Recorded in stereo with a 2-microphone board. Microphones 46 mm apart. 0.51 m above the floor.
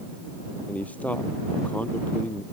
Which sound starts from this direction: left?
A man speaking, at 0.7 s.